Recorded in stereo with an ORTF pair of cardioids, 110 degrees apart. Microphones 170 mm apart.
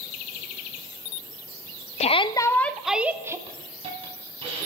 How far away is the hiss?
About 4.5 m.